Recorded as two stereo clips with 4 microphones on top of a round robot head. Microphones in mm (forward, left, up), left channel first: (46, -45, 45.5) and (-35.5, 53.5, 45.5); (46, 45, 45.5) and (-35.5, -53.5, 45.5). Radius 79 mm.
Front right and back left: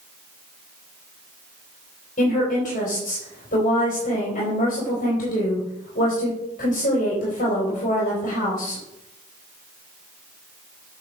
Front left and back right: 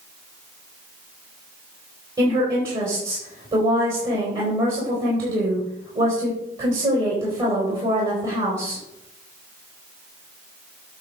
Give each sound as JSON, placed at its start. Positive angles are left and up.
{"t": 2.2, "sound": "a woman speaking", "azimuth_deg": -75, "distance_m": 4.0}